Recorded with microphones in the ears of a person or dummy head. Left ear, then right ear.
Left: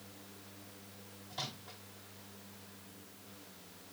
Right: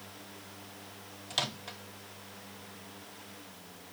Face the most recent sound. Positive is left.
turn(degrees=-40)  # may be behind; listen again after turning